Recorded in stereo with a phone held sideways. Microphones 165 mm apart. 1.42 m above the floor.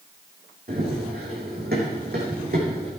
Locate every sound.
0.7 s running footsteps: 70° right (ahead or behind), 4 m; by 2.9 s 65° right (ahead or behind), 4 m